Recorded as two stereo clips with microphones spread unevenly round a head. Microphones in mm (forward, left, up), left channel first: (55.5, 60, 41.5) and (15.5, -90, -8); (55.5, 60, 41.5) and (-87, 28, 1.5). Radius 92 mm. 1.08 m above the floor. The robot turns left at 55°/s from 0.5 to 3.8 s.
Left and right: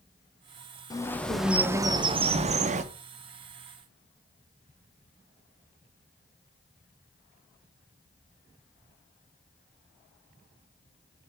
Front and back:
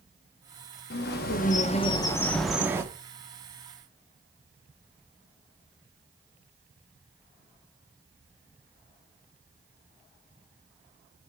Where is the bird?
Straight ahead, 0.7 m; by 2.8 s 105° right, 0.7 m.